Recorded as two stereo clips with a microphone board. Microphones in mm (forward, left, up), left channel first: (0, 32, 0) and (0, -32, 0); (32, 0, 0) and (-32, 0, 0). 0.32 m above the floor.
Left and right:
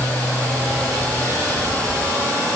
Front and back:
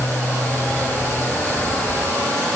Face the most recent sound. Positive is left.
No sound to turn to.